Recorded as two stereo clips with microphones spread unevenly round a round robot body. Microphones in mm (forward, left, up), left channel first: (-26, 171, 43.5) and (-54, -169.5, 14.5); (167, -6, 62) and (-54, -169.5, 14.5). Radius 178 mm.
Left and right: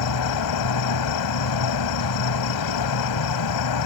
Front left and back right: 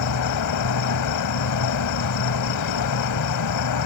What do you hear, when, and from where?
0.0 s an insect: 60° left